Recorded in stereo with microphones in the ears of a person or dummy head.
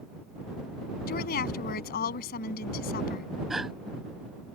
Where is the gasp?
5° right (ahead or behind).